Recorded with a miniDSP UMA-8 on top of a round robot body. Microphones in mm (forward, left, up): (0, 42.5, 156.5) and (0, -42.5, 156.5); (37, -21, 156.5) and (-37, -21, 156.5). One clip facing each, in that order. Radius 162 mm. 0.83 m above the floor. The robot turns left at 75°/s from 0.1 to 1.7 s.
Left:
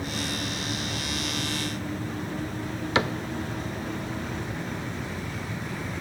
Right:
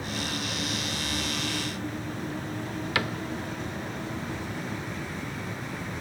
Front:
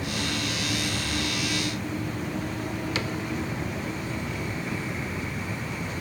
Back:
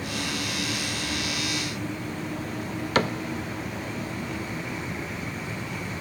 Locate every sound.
3.0 s a cupboard door: 155° left, 0.7 m